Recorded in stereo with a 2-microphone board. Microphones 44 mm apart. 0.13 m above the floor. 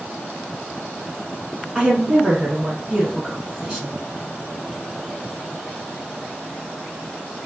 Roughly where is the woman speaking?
Centre.